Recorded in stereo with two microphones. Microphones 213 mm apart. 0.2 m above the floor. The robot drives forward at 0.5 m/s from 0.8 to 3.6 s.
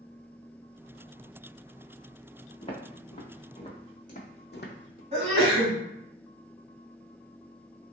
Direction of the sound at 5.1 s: 30° right (ahead or behind).